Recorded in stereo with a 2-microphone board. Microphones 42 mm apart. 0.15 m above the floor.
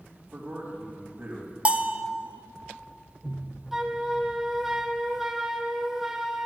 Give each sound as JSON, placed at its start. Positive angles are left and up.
{"t": 0.3, "sound": "a man speaking", "side_deg": -35, "distance_m": 4.5}
{"t": 1.6, "sound": "a bell", "side_deg": -30, "distance_m": 0.7}
{"t": 3.7, "sound": "a flute", "side_deg": -5, "distance_m": 0.9}